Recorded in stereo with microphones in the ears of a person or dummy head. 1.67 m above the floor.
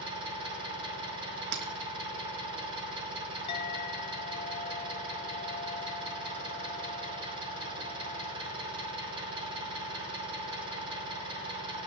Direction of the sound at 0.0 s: 30° right (ahead or behind).